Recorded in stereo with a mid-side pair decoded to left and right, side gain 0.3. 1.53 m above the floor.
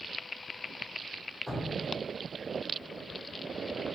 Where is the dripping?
20° left, 0.6 m.